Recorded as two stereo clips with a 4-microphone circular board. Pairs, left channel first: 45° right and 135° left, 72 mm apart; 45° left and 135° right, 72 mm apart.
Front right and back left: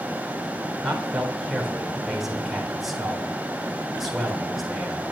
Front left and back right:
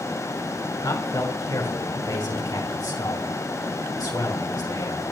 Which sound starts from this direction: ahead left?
A man speaking, at 0.8 s.